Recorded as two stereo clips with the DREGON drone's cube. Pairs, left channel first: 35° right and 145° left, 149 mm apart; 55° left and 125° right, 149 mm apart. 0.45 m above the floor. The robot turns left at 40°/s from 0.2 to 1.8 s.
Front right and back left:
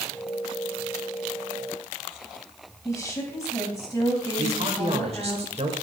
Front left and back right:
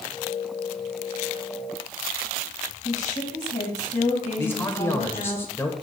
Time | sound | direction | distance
2.9 | a woman speaking | 30° left | 2.0 m
4.4 | a man speaking | 125° left | 1.2 m